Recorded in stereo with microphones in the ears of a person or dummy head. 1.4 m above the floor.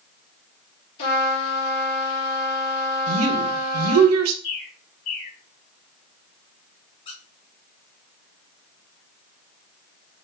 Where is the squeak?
30° left (ahead or behind), 3.5 m.